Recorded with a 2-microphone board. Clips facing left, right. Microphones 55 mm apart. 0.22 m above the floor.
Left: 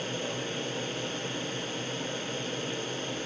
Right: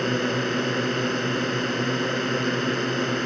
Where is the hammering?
No hammering in this recording.